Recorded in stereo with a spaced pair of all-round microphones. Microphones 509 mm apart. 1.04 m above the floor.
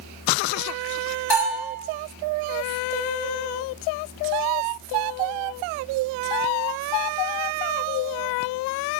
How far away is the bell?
About 1.9 m.